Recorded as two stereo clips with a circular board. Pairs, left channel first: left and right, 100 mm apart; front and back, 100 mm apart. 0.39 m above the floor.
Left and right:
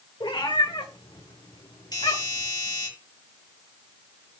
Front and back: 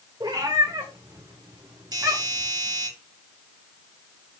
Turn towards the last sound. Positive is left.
turn(degrees=130)